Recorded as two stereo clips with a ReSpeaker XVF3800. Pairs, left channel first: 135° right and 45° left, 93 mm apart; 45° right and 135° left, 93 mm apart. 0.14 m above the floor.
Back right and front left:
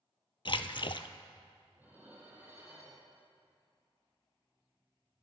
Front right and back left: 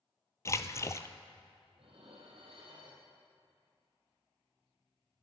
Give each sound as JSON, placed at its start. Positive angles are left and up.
{"t": 0.5, "sound": "a splash", "azimuth_deg": -105, "distance_m": 0.5}
{"t": 1.8, "sound": "dishes clattering", "azimuth_deg": 115, "distance_m": 3.0}